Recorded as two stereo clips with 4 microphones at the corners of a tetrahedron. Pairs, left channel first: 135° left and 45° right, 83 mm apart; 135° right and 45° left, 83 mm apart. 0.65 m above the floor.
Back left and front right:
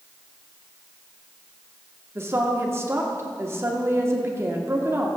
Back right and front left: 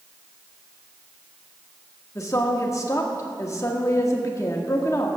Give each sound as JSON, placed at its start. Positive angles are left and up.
{"t": 2.1, "sound": "a woman speaking", "azimuth_deg": -95, "distance_m": 1.2}